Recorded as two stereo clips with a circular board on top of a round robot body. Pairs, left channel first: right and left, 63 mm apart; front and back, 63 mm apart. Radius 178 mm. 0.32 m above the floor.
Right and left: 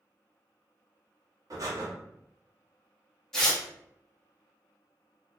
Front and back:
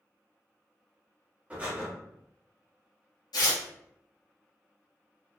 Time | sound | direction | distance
1.5 | breathing | 110° left | 1.0 m
3.3 | tearing paper | 5° right | 1.0 m